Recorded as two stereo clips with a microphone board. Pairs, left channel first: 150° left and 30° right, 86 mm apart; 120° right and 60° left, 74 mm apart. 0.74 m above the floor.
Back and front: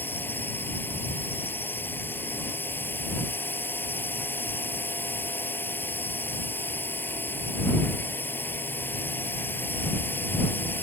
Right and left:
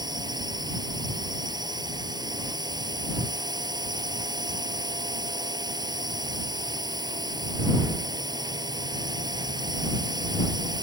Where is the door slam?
I don't hear a door slam.